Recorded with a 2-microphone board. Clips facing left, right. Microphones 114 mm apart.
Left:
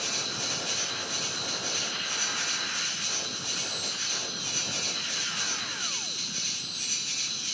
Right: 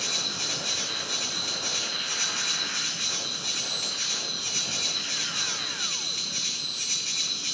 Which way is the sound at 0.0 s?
75° right (ahead or behind).